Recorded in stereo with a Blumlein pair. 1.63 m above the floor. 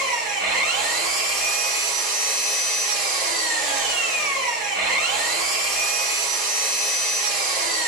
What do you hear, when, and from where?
0.0 s an engine running: 35° right, 1.5 m